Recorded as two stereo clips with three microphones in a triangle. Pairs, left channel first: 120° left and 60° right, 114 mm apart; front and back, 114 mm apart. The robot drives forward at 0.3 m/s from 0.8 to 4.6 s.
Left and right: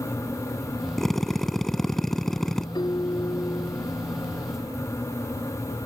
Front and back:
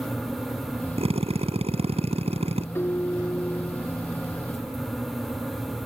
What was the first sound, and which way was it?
A drill, 155° right.